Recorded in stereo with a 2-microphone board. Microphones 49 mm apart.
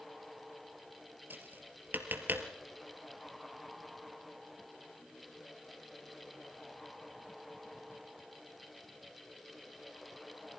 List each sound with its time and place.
1.3 s tapping: 45° right (ahead or behind), 2 m